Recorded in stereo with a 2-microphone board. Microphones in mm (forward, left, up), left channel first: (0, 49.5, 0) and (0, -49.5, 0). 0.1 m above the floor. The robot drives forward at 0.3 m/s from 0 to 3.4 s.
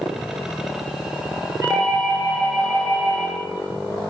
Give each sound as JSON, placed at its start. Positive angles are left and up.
{"t": 1.6, "sound": "a doorbell", "side_deg": -20, "distance_m": 1.8}